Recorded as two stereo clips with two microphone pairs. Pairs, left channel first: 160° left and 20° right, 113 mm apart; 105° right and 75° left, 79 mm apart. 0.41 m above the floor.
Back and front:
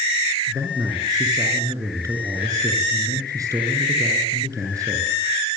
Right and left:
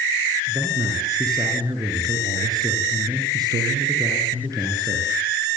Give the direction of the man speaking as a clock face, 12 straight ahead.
11 o'clock.